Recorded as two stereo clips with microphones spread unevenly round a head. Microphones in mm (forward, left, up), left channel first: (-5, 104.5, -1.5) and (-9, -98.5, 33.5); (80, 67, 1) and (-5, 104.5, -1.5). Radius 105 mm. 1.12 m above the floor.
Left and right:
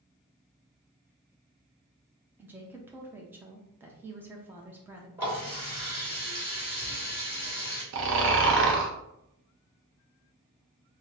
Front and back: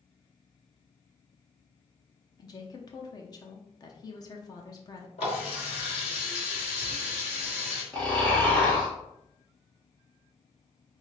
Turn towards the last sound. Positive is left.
turn(degrees=-105)